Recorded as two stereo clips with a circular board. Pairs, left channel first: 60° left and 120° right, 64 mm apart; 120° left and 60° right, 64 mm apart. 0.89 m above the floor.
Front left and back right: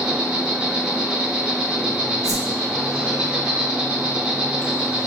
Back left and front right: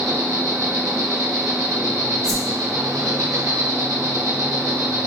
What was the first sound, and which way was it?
An insect, 45° right.